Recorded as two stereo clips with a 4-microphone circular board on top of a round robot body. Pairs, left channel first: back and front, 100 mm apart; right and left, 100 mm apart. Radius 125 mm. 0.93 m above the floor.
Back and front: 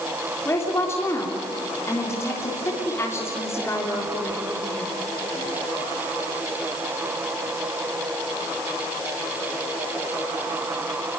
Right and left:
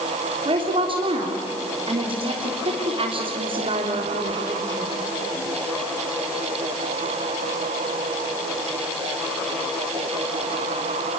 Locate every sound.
0.5 s a woman speaking: 115° left, 3.5 m